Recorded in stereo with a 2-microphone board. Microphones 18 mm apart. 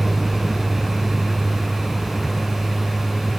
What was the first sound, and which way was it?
A vehicle, 20° right (ahead or behind).